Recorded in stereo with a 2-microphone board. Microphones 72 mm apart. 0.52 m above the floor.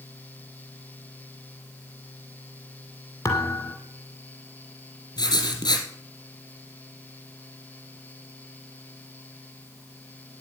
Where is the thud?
40° left (ahead or behind), 2.5 m.